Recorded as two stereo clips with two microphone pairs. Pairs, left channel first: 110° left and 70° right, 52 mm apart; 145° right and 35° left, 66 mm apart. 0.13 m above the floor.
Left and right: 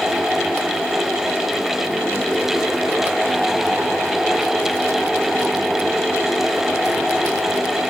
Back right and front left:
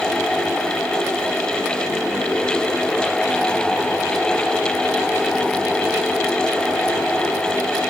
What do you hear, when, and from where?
Only background noise.